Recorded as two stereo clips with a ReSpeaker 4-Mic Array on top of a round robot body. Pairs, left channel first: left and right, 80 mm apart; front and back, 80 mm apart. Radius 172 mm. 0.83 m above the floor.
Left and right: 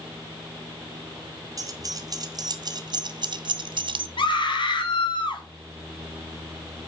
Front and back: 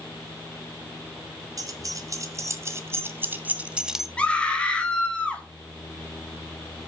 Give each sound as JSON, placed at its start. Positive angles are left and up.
{"t": 1.6, "sound": "keys jangling", "azimuth_deg": -135, "distance_m": 1.8}
{"t": 4.2, "sound": "a scream", "azimuth_deg": 75, "distance_m": 3.5}